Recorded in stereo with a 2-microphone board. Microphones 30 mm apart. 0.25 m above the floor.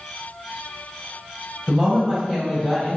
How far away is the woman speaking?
About 1.0 m.